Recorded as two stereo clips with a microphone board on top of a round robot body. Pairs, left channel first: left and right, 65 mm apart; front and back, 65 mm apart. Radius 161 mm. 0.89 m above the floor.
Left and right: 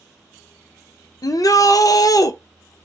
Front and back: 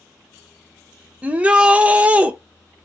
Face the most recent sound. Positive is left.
turn(degrees=110)